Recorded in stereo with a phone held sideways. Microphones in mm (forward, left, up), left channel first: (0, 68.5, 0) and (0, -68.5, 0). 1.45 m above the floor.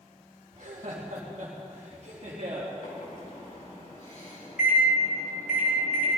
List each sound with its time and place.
0.5 s laughter: 60° right (ahead or behind), 1.8 m; by 2.7 s 40° right (ahead or behind), 3 m
2.8 s a microwave: 65° left (ahead or behind), 4.5 m